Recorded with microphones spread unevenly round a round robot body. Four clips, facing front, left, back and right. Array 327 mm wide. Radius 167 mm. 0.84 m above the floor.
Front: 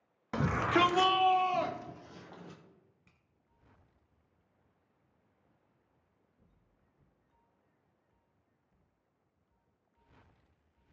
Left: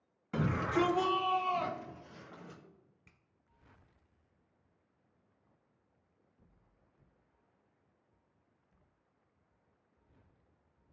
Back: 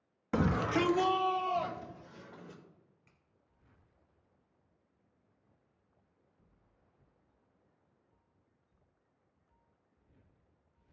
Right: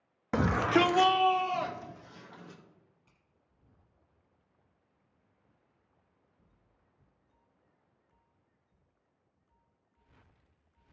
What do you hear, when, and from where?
0.3 s a shout: 105° right, 1.1 m; by 2.6 s straight ahead, 2.5 m
3.1 s a finger snap: 75° left, 2.5 m